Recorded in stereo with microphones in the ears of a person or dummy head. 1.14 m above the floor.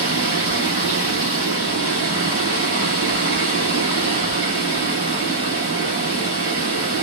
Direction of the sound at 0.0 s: 75° right (ahead or behind).